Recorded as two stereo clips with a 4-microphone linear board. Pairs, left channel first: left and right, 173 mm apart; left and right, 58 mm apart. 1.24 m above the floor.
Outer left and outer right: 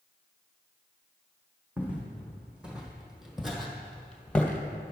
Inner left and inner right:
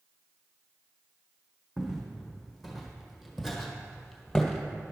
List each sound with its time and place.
1.8 s footsteps: 10° right (ahead or behind), 2.5 m; by 4.9 s 15° left (ahead or behind), 1.3 m